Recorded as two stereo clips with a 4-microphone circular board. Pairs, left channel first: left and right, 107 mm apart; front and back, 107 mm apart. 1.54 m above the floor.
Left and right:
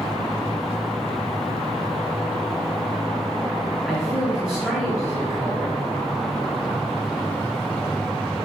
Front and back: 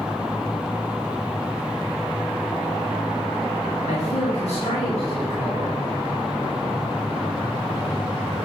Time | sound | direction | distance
3.9 | a man speaking | 5° left | 2.5 m